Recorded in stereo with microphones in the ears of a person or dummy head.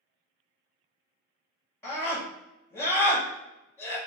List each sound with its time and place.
1.8 s a scream: 15° left (ahead or behind), 1.9 m